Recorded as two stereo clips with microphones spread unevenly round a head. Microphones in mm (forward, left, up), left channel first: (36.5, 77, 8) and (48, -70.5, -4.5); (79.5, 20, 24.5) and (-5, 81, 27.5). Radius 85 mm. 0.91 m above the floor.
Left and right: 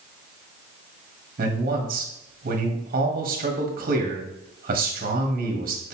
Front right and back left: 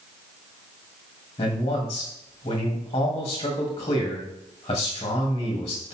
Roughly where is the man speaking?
Right.